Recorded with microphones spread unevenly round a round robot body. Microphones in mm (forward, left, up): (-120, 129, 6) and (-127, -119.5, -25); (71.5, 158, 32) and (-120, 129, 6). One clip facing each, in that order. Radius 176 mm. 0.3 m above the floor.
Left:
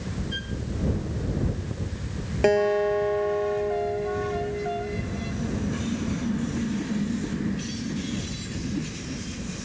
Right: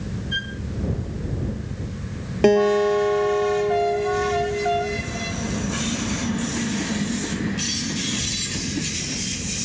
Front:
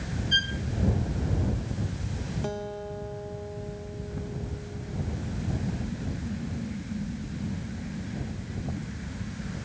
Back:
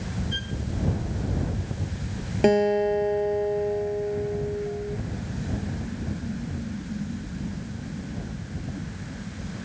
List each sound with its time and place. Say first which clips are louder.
0.3 s a violin: even, back 1 dB; 45° right
2.4 s a guitar: right 5 dB, back 18 dB; 130° right